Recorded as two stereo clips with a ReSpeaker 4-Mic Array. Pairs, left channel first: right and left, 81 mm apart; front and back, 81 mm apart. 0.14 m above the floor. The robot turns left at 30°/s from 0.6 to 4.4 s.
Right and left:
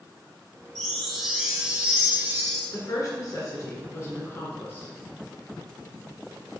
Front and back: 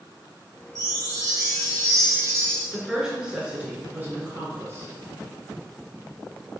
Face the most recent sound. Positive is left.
turn(degrees=-140)